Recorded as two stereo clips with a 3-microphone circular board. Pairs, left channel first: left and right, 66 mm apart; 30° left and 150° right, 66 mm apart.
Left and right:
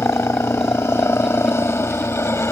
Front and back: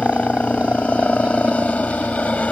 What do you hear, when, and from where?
0.0 s a helicopter: 90° left